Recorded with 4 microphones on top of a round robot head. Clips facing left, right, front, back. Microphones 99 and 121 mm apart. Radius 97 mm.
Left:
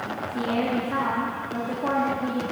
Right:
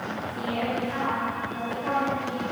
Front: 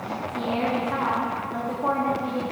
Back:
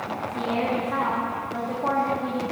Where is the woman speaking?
85° left, 2 m.